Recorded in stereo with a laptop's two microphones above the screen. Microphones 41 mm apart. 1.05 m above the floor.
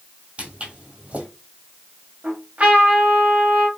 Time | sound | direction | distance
0.4 | footsteps | 30° right (ahead or behind) | 1.3 m
2.2 | a trumpet | 35° right (ahead or behind) | 1.2 m